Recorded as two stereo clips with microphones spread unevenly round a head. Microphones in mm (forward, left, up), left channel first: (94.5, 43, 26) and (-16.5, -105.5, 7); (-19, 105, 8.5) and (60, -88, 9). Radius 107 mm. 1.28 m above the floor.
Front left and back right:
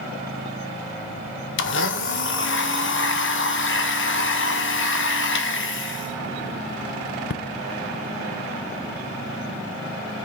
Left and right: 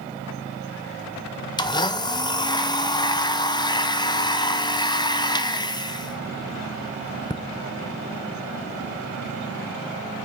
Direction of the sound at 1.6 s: 45° left.